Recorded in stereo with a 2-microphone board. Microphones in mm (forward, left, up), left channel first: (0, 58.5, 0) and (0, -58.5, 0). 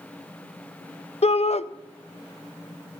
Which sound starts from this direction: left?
A shout, at 1.2 s.